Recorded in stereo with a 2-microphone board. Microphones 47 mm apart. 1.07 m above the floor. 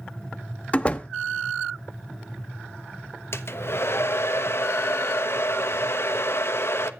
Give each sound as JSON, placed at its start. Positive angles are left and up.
{"t": 0.7, "sound": "a door slam", "side_deg": 25, "distance_m": 0.7}
{"t": 3.3, "sound": "a hair dryer", "side_deg": 60, "distance_m": 1.0}